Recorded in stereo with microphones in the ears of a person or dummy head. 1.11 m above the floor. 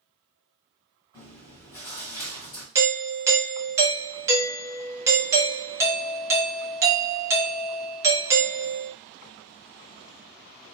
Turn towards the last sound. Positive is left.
turn(degrees=-15)  # may be behind; listen again after turning